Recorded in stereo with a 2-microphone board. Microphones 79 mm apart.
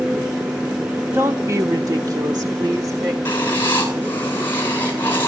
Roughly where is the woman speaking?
Right.